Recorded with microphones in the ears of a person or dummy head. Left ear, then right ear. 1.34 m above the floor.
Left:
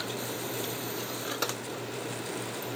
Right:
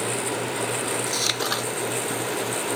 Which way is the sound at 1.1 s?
75° right (ahead or behind).